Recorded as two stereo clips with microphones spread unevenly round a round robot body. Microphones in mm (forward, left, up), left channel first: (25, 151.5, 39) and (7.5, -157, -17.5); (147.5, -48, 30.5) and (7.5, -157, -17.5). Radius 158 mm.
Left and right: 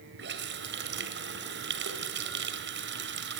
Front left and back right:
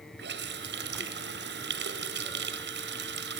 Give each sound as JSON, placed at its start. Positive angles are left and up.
{"t": 0.2, "sound": "a running tap", "azimuth_deg": -150, "distance_m": 1.7}